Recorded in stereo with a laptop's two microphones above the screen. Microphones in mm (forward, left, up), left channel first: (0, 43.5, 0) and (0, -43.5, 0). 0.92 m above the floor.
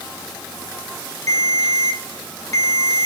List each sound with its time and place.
1.3 s a ringtone: 35° left (ahead or behind), 1.7 m